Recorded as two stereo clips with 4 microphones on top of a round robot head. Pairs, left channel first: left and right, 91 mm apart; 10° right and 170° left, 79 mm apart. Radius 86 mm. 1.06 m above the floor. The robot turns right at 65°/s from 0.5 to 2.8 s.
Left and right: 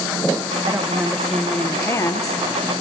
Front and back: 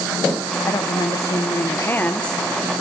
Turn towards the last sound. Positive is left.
turn(degrees=100)